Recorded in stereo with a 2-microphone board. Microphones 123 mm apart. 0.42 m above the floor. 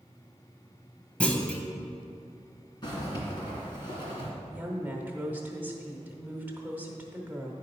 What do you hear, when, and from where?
1.2 s a clunk: 10° left (ahead or behind), 1.0 m
2.8 s a zipper: 40° left (ahead or behind), 2.5 m
4.5 s a woman speaking: 15° right (ahead or behind), 1.2 m